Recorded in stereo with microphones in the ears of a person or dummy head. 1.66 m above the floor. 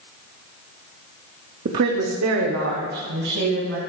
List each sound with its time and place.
1.6 s a woman speaking: 45° right (ahead or behind), 0.5 m; by 3.8 s 85° right, 2 m